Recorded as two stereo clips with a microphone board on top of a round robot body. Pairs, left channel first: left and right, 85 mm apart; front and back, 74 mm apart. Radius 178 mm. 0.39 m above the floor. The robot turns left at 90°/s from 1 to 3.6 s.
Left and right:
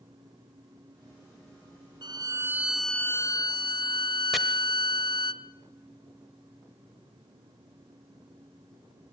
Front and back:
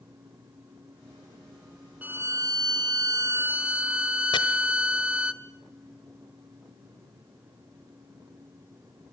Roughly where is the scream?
I don't hear a scream.